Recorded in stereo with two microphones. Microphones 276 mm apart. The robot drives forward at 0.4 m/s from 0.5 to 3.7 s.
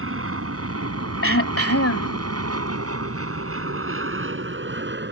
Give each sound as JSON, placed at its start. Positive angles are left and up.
{"t": 0.0, "sound": "an aircraft", "side_deg": -55}
{"t": 1.2, "sound": "throat clearing", "side_deg": 50}